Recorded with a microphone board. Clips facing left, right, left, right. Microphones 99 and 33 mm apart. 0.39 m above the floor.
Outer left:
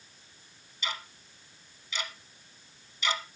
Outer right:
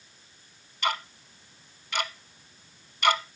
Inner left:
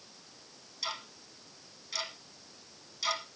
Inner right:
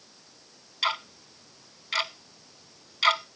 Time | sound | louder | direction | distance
0.8 | ticking | outer right 9 dB, inner right 11 dB | 60° right (ahead or behind) | 0.9 m